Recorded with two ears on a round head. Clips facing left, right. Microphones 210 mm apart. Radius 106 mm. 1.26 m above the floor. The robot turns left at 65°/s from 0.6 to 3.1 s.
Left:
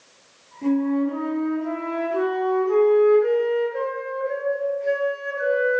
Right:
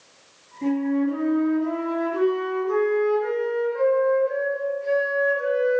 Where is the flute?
135° right, 1.3 m; by 5.8 s 65° left, 1.3 m.